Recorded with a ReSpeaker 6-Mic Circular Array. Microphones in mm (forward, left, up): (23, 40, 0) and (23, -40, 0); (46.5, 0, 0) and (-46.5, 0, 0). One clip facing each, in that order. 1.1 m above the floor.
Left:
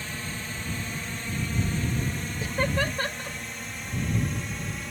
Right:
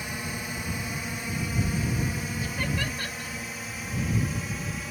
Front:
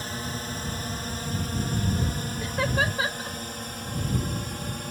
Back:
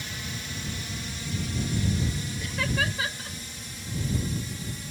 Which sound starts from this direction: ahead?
A drone, at 0.0 s.